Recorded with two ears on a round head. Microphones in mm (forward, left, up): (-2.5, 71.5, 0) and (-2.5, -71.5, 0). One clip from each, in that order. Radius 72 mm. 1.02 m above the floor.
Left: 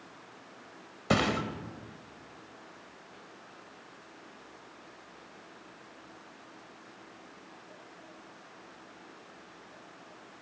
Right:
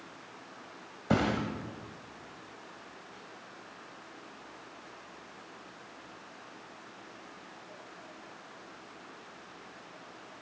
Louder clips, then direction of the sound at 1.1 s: Left 2 dB; 65° left (ahead or behind).